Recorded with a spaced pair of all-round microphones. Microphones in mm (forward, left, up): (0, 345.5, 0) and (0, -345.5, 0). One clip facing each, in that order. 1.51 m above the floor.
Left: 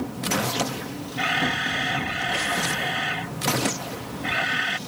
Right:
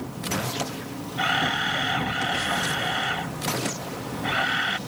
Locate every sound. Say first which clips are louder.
1.2 s a camera shutter: left 2 dB; 55° left (ahead or behind)